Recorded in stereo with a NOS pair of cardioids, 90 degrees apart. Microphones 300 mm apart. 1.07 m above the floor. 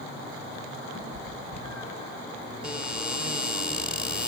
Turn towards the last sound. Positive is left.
turn(degrees=-5)